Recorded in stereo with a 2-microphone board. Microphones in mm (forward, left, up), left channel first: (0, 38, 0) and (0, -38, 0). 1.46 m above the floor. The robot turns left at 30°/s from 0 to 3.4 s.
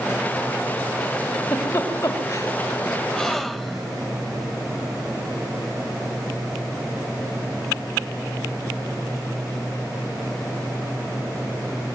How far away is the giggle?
About 5 m.